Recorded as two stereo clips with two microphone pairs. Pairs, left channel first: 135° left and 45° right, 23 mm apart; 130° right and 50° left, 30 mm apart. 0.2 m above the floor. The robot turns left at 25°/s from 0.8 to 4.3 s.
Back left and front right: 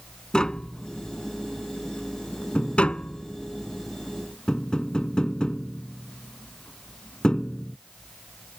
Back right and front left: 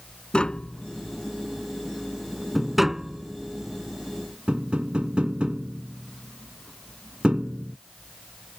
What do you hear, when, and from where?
0.3 s tapping: straight behind; by 7.8 s 90° left